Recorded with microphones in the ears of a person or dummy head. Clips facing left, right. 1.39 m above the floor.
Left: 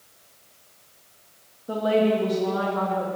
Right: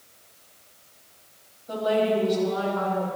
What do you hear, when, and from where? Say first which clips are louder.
1.7 s a woman speaking: left 2 dB; 40° left (ahead or behind), 2.5 m